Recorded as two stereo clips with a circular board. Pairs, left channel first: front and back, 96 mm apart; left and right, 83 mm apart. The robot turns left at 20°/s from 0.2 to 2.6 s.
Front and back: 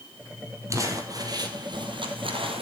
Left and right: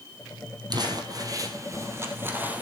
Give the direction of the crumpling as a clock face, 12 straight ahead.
4 o'clock.